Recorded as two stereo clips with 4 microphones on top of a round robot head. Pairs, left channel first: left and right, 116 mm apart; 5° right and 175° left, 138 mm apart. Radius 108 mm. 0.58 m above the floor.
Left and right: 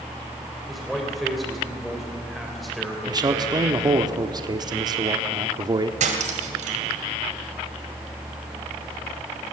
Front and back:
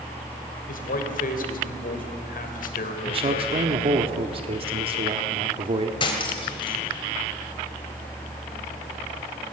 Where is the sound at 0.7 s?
Straight ahead, 3 m.